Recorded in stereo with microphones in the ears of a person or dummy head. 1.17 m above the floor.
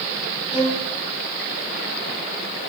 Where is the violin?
10° right (ahead or behind), 9 m.